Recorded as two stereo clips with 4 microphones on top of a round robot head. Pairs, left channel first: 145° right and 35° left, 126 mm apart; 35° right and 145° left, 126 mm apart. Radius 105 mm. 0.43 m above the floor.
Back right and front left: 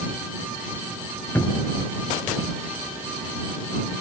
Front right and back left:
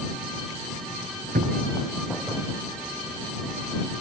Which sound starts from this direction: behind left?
A cupboard door, at 1.4 s.